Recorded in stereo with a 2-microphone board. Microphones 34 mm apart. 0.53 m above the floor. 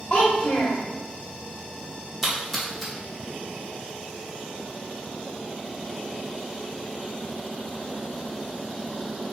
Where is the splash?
5° right (ahead or behind), 1.3 m.